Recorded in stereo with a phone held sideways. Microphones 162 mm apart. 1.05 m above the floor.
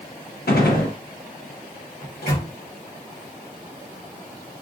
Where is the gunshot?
75° left (ahead or behind), 0.8 m.